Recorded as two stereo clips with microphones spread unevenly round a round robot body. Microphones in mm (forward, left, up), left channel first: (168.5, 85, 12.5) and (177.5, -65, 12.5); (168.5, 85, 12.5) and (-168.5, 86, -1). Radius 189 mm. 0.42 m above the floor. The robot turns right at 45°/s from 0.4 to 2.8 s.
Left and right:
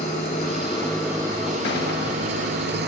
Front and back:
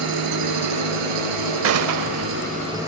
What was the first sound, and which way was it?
An engine running, 155° left.